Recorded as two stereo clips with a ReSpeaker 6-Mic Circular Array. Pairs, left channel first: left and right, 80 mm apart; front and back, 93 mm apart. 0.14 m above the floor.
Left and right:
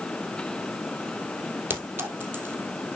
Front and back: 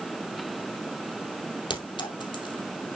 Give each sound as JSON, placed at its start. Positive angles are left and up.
{"t": 1.7, "sound": "a clink", "azimuth_deg": -25, "distance_m": 2.5}